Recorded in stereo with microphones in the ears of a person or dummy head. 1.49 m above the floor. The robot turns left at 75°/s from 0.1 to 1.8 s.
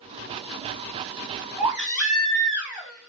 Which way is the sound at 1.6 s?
10° right (ahead or behind).